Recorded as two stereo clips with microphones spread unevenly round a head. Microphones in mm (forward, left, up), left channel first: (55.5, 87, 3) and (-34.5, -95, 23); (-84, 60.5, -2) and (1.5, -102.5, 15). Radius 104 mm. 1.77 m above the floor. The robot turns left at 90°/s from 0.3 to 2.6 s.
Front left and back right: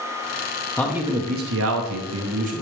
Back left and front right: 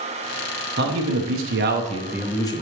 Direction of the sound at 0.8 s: 20° right.